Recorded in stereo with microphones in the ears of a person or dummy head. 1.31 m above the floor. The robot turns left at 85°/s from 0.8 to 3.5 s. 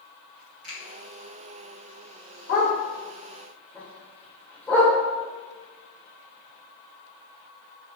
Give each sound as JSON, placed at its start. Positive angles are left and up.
{"t": 0.6, "sound": "a finger snap", "side_deg": -65, "distance_m": 1.6}
{"t": 2.5, "sound": "a dog barking", "side_deg": 60, "distance_m": 1.6}